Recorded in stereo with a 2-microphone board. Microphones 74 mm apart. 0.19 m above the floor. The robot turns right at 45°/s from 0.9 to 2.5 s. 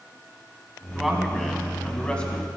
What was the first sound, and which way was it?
A man speaking, 5° right (ahead or behind).